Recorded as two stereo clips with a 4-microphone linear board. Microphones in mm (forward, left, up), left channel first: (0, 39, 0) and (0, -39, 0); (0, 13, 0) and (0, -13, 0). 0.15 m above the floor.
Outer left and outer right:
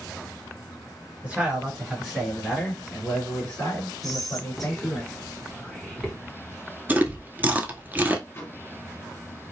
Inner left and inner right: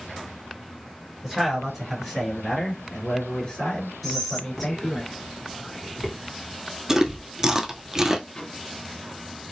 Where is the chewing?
25° right (ahead or behind), 0.5 m.